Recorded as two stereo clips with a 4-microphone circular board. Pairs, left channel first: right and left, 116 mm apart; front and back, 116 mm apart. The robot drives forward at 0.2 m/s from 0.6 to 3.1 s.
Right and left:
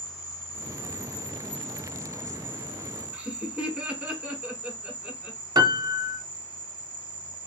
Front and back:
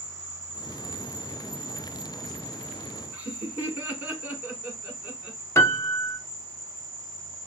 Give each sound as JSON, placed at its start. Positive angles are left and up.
{"t": 0.0, "sound": "an insect", "azimuth_deg": 130, "distance_m": 2.5}
{"t": 3.1, "sound": "laughter", "azimuth_deg": 145, "distance_m": 1.1}
{"t": 5.5, "sound": "a piano", "azimuth_deg": 55, "distance_m": 0.6}